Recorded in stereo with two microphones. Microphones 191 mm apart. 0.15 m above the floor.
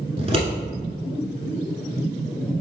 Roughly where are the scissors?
Right.